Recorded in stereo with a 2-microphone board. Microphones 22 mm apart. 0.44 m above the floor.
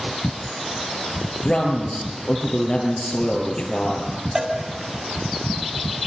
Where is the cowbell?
20° right (ahead or behind), 2.5 m.